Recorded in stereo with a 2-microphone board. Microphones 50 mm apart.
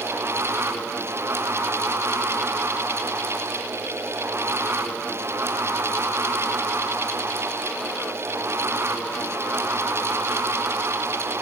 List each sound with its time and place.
Only background noise.